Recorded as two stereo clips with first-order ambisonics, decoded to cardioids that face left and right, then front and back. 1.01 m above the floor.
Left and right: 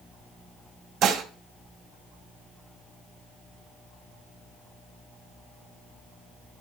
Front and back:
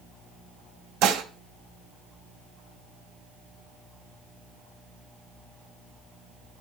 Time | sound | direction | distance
1.0 | dishes clattering | 140° right | 0.6 m